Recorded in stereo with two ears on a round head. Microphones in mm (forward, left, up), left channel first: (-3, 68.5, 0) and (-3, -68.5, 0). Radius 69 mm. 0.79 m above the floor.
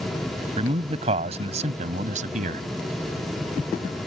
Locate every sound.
0.6 s a man speaking: 35° right (ahead or behind); by 2.6 s 50° right (ahead or behind)